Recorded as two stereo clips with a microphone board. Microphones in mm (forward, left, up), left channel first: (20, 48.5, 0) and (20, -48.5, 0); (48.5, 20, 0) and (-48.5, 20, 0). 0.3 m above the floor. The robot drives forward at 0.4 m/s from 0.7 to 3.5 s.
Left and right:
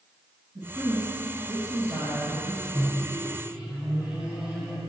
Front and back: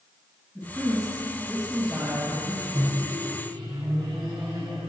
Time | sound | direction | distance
0.6 | a woman speaking | 95° right | 2.5 m
2.7 | a microwave | 160° right | 2.5 m